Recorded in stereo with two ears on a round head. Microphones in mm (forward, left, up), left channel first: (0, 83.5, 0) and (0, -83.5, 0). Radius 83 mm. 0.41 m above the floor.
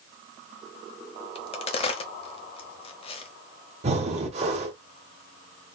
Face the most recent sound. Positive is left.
turn(degrees=-35)  # may be behind; listen again after turning